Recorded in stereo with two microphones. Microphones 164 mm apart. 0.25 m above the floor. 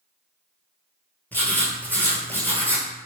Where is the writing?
10° left (ahead or behind), 0.9 m.